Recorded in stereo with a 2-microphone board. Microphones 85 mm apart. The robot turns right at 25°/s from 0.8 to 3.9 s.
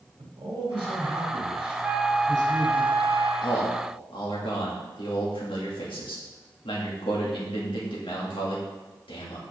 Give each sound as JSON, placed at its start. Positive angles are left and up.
{"t": 0.2, "sound": "a man speaking", "azimuth_deg": -95, "distance_m": 2.5}
{"t": 1.8, "sound": "a flute", "azimuth_deg": -155, "distance_m": 0.7}
{"t": 3.4, "sound": "a man speaking", "side_deg": 80, "distance_m": 2.0}